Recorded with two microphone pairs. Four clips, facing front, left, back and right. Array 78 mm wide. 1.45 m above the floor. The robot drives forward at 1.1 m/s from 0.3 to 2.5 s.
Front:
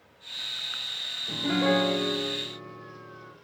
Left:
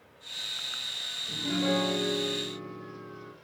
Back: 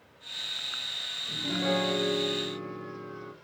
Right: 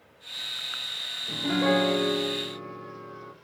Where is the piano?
50° right, 1.1 m; by 3.3 s 130° right, 1.1 m.